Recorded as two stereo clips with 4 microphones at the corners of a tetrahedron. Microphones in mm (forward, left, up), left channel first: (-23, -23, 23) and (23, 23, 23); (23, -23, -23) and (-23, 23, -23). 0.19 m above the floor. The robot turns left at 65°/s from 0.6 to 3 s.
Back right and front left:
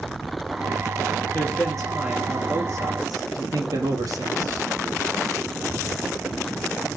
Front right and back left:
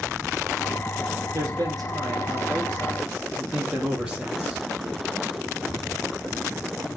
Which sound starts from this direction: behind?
A man speaking, at 1.3 s.